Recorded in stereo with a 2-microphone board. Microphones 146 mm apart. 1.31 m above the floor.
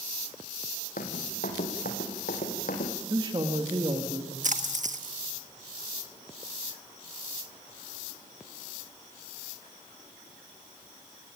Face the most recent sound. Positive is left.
turn(degrees=-55)  # may be behind; listen again after turning